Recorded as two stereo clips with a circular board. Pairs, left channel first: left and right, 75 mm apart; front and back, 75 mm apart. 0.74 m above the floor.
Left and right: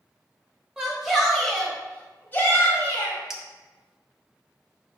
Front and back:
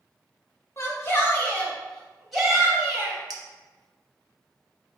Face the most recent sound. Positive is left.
turn(degrees=-175)